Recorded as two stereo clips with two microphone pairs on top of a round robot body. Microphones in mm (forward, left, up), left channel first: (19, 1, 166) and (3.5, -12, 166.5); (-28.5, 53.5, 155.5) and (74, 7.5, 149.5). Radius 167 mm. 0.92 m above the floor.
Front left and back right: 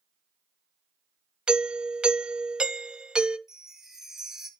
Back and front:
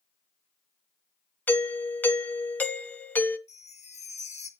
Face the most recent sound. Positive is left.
turn(degrees=150)